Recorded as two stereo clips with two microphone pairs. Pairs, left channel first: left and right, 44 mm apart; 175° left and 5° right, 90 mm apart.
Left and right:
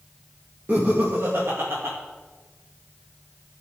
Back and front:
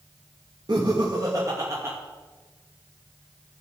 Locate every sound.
0.7 s laughter: 45° right, 2 m; by 2.0 s 70° right, 2 m